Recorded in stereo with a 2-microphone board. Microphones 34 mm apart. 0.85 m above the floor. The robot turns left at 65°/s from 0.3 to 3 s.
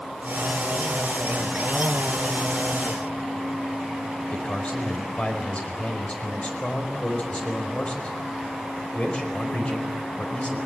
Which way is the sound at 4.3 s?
35° left (ahead or behind).